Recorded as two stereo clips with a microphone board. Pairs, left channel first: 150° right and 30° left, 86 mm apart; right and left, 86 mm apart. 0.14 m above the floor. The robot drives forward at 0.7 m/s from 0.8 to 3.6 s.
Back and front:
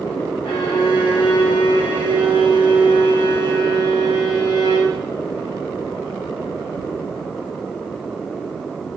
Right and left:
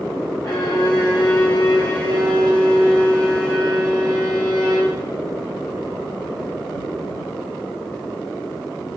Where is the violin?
140° right, 1.9 m; by 5.0 s 160° right, 3.5 m.